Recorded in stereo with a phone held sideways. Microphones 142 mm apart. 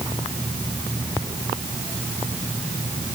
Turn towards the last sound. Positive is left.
No sound to turn to.